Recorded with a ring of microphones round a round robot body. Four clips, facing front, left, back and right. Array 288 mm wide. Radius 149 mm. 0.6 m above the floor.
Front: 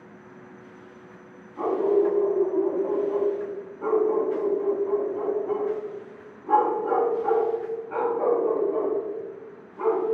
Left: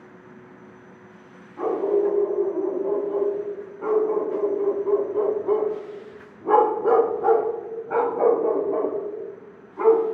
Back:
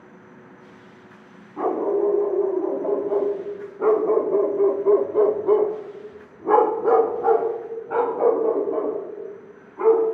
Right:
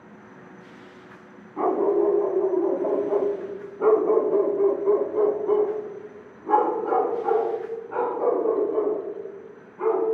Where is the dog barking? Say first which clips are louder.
Right 1 dB, even; 120° right, 2.5 m; by 10.0 s 110° left, 2.5 m.